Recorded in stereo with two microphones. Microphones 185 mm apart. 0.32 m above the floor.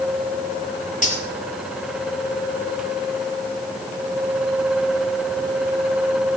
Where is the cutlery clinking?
45° left (ahead or behind), 4 m.